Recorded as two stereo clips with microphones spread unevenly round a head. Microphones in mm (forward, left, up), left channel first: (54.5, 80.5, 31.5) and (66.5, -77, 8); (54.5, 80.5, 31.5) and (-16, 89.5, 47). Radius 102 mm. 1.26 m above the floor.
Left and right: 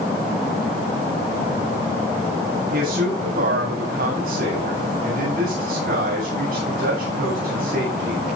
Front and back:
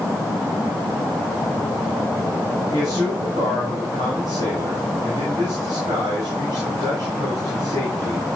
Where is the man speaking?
125° right, 8.5 m.